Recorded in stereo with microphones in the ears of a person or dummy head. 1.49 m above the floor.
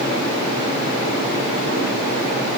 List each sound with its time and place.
Only background noise.